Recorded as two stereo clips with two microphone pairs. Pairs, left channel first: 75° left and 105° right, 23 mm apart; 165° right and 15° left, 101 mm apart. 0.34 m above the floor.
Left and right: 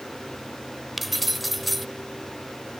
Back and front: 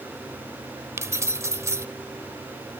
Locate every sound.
1.0 s keys jangling: 20° right, 0.7 m